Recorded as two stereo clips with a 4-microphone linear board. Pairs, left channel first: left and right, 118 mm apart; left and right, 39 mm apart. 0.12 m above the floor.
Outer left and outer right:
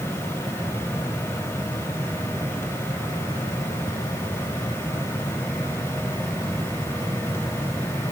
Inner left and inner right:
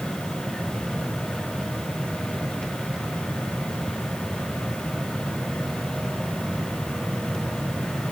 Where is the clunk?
No clunk in this recording.